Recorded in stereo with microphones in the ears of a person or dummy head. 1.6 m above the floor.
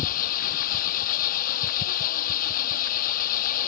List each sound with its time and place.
0.0 s an engine running: 45° left (ahead or behind)